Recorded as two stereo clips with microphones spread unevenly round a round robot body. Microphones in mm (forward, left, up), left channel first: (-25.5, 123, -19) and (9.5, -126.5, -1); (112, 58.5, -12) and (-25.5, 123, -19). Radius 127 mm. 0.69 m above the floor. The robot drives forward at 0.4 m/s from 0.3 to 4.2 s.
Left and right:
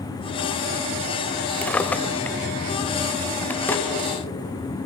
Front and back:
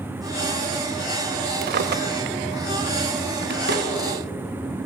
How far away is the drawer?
About 0.7 m.